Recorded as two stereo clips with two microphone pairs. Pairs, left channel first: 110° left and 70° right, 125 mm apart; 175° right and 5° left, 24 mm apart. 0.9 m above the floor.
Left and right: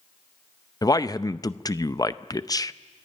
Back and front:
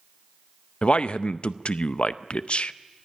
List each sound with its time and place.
0.8 s a man speaking: 170° left, 0.6 m